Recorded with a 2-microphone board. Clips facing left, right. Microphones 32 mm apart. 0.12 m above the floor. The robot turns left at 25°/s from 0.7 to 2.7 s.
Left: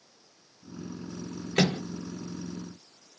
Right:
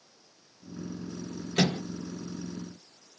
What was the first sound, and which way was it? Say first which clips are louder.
A microwave: left 1 dB; 45° left (ahead or behind).